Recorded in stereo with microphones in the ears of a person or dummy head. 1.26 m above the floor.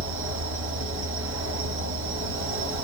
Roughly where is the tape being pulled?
No tape being pulled in this recording.